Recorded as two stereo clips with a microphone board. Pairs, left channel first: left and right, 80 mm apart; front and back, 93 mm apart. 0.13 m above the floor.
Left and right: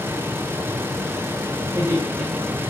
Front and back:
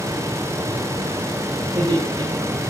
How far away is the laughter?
About 7 m.